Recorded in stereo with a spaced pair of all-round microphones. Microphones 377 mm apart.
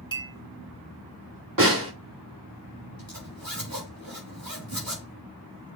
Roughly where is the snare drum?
Right.